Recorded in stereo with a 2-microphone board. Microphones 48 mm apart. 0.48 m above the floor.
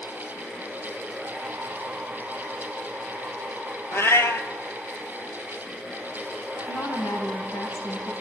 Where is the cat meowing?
60° left (ahead or behind), 1.0 m.